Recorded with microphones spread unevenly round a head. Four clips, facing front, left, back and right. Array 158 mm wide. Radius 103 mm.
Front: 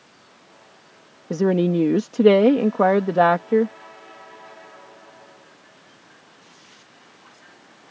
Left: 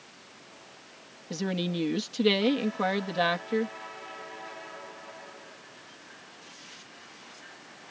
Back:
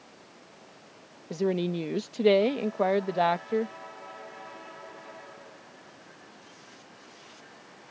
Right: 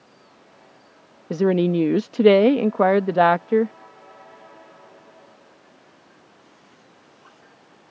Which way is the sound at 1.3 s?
35° right.